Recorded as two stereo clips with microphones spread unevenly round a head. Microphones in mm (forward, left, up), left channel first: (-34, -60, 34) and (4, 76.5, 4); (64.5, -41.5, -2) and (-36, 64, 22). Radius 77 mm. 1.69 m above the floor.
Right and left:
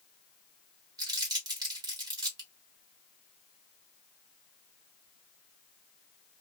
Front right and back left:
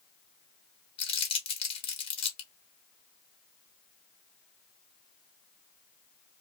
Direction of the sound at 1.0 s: 5° left.